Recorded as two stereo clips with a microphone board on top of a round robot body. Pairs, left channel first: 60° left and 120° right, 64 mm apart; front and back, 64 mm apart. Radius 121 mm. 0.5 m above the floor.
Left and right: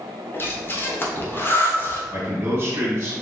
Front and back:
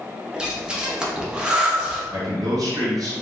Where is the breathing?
105° left, 1.3 m.